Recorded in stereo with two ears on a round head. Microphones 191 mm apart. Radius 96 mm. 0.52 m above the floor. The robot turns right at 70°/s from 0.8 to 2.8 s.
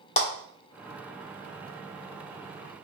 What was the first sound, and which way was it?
A clap, 35° left (ahead or behind).